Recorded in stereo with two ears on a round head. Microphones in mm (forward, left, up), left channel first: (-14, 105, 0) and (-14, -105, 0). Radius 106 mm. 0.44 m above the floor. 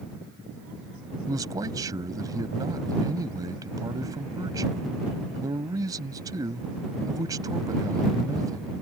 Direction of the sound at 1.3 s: 15° right (ahead or behind).